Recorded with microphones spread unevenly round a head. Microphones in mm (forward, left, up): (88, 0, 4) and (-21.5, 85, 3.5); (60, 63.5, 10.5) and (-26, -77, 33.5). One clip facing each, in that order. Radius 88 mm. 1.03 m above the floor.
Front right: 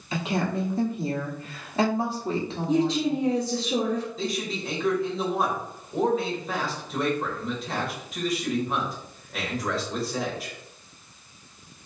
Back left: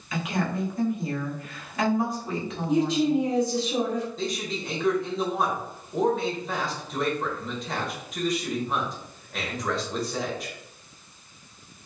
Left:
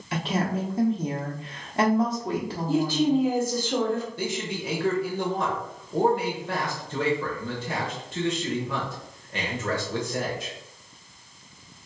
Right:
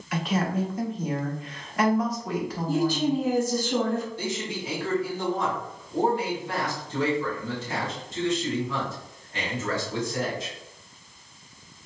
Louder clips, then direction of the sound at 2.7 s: Back left 1 dB, left 2 dB; 30° right.